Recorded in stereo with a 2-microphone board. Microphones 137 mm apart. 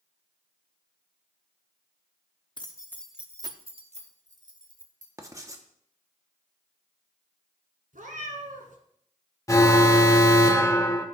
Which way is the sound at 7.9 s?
85° right.